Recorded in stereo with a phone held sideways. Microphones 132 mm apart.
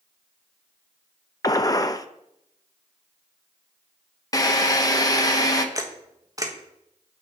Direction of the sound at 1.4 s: 30° left (ahead or behind).